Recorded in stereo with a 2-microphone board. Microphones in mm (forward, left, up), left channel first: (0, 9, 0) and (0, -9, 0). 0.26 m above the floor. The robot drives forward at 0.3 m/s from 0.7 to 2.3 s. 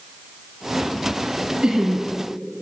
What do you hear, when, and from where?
1.6 s laughter: 65° right (ahead or behind), 3 m